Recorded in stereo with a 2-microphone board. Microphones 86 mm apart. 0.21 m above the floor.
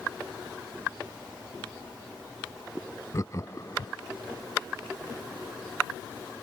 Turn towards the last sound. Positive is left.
turn(degrees=40)  # may be behind; listen again after turning